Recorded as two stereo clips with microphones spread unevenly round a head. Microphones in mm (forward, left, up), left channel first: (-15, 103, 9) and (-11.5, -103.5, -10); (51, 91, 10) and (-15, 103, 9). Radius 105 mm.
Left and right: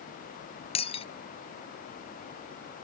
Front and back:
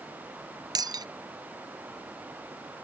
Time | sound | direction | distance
0.8 | breaking glass | 155° left | ?